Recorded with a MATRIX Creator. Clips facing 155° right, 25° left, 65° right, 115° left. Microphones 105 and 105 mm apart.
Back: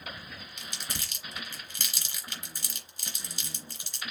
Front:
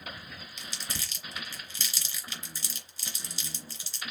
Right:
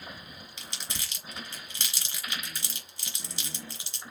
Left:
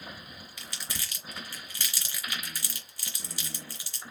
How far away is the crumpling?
About 3 m.